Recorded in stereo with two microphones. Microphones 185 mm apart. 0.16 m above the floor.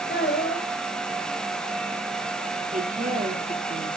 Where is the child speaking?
65° left (ahead or behind), 5.5 m.